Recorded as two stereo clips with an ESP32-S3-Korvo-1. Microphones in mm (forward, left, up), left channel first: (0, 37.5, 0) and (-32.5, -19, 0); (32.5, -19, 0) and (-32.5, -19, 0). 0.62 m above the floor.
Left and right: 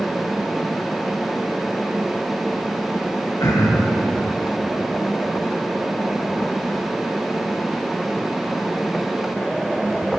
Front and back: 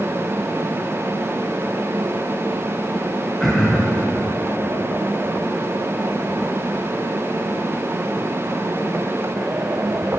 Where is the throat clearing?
90° left, 2 m.